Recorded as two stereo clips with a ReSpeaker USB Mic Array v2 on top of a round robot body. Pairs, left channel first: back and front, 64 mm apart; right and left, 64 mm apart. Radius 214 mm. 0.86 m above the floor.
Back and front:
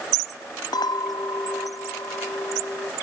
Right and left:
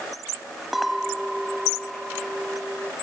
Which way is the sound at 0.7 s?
175° left.